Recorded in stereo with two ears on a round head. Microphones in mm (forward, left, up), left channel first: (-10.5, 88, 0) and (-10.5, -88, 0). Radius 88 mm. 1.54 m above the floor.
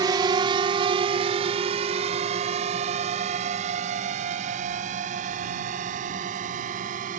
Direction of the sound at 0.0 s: 20° right (ahead or behind).